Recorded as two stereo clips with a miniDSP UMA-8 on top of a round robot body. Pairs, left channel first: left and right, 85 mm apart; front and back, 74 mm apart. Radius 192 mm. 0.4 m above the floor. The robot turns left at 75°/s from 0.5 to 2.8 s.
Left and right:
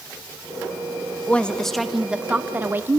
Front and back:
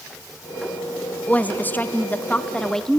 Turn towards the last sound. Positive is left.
turn(degrees=-75)